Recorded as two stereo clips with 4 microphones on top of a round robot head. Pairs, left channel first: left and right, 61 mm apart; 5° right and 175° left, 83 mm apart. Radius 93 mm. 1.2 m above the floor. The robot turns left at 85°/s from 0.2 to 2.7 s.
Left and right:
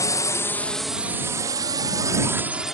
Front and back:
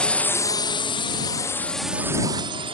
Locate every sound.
0.0 s a drone: 75° left; by 2.8 s 175° right